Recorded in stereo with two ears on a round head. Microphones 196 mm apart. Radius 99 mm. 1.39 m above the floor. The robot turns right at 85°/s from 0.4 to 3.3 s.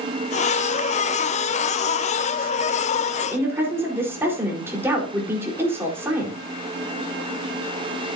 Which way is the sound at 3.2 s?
5° right (ahead or behind).